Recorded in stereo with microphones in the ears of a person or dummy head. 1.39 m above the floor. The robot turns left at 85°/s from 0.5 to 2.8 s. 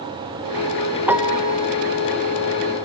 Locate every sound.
1.1 s a piano: 10° right, 0.7 m; by 1.6 s 55° right, 0.7 m